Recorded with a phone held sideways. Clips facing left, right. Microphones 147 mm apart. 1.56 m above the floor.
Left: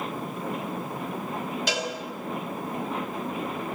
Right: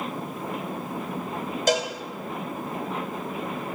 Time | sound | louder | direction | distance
1.7 | a cowbell | right 9 dB | 45° right (ahead or behind) | 1.6 m